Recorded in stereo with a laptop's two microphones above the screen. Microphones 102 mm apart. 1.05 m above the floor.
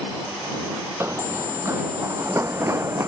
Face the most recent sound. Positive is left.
turn(degrees=-25)  # may be behind; listen again after turning